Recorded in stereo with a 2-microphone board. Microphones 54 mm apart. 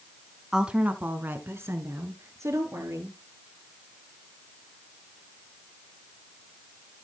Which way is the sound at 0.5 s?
15° right (ahead or behind).